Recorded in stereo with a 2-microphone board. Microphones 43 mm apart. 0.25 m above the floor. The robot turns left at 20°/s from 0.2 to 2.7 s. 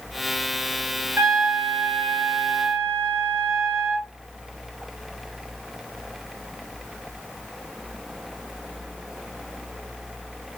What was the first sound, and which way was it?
A trumpet, 80° right.